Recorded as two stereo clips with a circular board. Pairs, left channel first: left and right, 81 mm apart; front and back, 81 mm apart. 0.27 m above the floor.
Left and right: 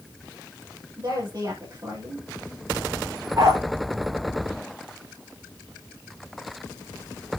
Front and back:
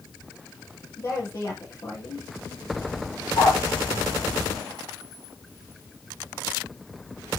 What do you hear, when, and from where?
1.0 s a woman speaking: 50° right, 7 m
3.4 s a dog barking: 45° right, 7.5 m